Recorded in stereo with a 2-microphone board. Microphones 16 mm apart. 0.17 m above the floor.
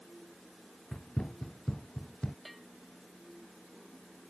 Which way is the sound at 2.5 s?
5° left (ahead or behind).